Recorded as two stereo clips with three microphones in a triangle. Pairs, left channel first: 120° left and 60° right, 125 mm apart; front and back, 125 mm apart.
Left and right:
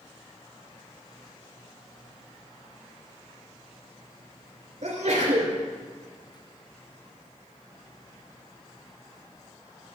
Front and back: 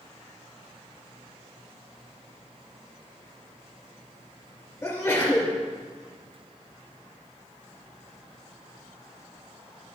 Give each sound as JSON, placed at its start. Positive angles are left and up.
{"t": 4.8, "sound": "a sneeze", "azimuth_deg": -70, "distance_m": 2.5}